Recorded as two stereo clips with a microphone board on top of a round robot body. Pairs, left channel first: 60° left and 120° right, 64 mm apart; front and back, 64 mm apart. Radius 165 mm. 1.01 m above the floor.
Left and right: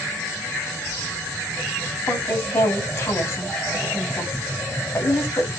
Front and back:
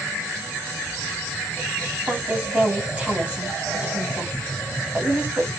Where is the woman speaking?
110° left, 6 m.